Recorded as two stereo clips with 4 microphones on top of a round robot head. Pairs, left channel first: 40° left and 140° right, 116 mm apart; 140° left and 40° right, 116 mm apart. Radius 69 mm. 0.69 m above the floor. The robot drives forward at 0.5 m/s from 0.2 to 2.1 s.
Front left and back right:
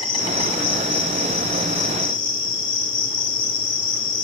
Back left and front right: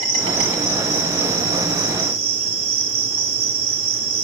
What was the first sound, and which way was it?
An insect, 5° right.